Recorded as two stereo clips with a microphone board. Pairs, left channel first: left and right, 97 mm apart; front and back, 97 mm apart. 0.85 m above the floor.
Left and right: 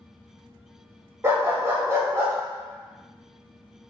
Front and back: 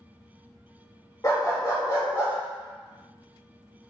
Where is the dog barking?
40° right, 0.8 m.